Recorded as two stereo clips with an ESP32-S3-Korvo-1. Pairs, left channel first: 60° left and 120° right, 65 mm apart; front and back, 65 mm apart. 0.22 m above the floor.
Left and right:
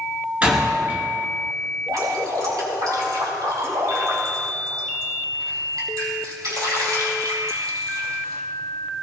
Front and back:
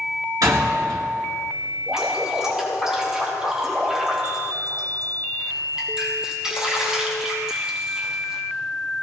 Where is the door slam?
175° left, 2.5 m.